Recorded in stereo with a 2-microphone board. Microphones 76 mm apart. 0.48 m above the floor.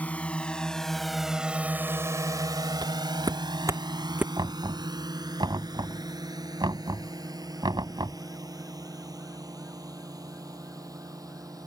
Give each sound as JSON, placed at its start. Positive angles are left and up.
{"t": 0.0, "sound": "a drone", "side_deg": 20}
{"t": 2.8, "sound": "footsteps", "side_deg": -65}
{"t": 4.4, "sound": "knocking", "side_deg": -75}